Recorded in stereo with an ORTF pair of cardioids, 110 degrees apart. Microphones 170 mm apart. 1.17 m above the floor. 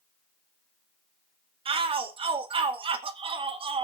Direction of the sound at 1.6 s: 30° right.